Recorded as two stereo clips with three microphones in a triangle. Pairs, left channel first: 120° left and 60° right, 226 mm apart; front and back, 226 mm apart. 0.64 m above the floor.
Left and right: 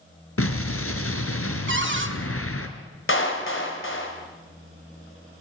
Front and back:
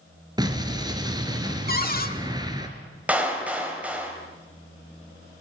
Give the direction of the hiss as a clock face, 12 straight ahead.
I don't hear a hiss.